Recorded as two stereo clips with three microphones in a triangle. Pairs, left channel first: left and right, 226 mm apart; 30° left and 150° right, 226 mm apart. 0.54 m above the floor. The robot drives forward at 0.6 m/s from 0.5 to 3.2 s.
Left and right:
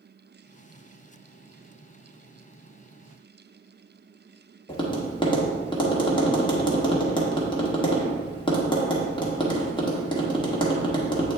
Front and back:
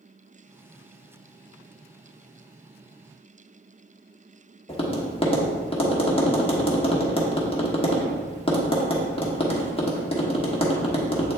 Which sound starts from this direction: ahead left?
Tapping, at 4.7 s.